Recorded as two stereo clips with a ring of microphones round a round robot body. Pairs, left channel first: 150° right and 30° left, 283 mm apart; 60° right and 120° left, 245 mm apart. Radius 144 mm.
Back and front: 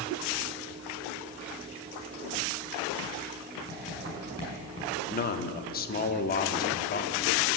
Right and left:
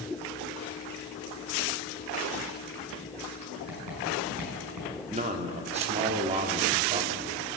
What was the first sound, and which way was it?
Writing, 140° left.